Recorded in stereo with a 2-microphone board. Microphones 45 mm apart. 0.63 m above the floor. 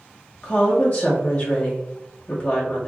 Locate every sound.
0.4 s a woman speaking: 30° left (ahead or behind), 1.1 m